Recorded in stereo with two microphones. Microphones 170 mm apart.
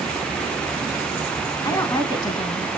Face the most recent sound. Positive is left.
turn(degrees=25)  # may be behind; listen again after turning